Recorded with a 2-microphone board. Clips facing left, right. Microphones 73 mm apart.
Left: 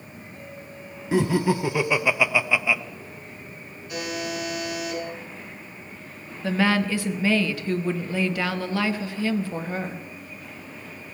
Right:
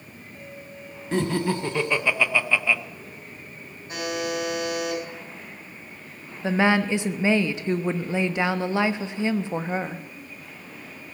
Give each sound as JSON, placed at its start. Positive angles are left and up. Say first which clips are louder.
{"t": 1.1, "sound": "laughter", "louder": "left 3 dB", "side_deg": 5, "distance_m": 0.8}
{"t": 3.9, "sound": "a buzzer", "louder": "right 2 dB", "side_deg": -35, "distance_m": 6.5}
{"t": 6.4, "sound": "a woman speaking", "louder": "right 1 dB", "side_deg": -20, "distance_m": 1.0}